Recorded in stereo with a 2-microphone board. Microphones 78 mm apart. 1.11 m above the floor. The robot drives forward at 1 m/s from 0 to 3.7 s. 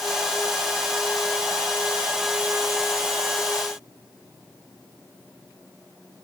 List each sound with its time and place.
Only background noise.